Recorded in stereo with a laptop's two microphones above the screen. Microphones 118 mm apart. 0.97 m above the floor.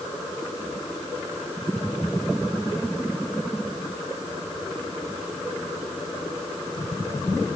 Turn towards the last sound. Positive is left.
No sound to turn to.